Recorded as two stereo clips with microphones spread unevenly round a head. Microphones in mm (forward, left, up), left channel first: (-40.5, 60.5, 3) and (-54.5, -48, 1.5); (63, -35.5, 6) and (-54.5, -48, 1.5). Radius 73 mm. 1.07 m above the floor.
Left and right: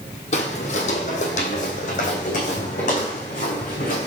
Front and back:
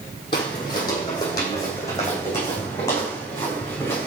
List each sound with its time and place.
0.3 s footsteps: 60° left, 2.5 m; by 4.1 s 80° left, 5 m